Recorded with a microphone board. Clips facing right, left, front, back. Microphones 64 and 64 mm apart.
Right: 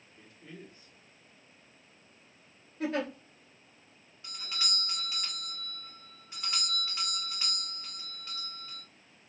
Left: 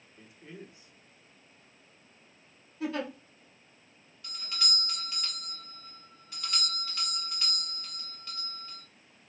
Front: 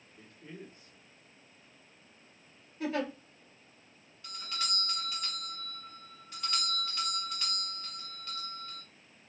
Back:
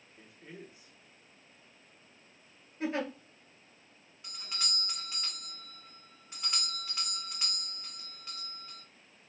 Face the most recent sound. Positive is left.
turn(degrees=-130)